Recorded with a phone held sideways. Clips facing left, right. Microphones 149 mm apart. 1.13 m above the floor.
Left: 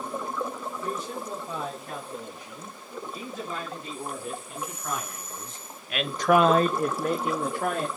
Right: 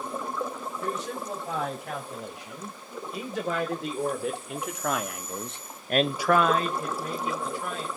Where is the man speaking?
90° right, 7.5 m; by 7.9 s 70° left (ahead or behind), 2.5 m.